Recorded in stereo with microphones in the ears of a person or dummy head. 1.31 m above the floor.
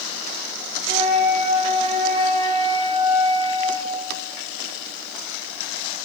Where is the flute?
55° right (ahead or behind), 3.5 m.